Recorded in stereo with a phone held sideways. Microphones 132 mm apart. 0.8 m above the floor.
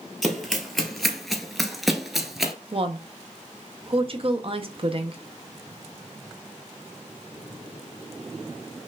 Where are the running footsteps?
Centre (ahead or behind), 1.1 m; by 2.5 s 5° right (ahead or behind), 0.8 m.